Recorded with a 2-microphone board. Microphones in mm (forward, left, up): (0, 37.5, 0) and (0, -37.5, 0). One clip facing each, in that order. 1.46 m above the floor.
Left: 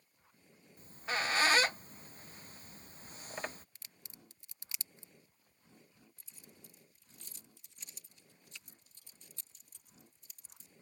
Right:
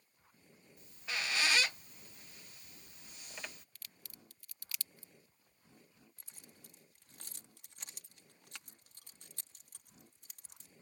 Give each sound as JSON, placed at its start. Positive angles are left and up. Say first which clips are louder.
{"t": 0.8, "sound": "a squeak", "louder": "left 5 dB", "side_deg": 40}
{"t": 3.8, "sound": "a crack", "louder": "even", "side_deg": 25}
{"t": 6.2, "sound": "keys jangling", "louder": "left 1 dB", "side_deg": -70}